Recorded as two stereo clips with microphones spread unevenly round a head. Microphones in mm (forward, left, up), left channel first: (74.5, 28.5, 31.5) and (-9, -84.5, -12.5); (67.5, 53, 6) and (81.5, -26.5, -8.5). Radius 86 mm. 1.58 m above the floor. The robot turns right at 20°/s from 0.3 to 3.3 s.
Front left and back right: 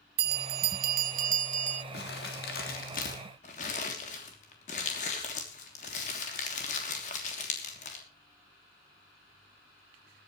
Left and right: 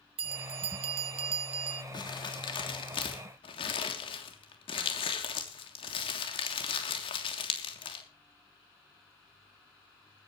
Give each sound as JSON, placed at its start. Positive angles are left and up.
{"t": 0.2, "sound": "a bell", "azimuth_deg": -115, "distance_m": 0.5}
{"t": 1.9, "sound": "crumpling", "azimuth_deg": 75, "distance_m": 3.0}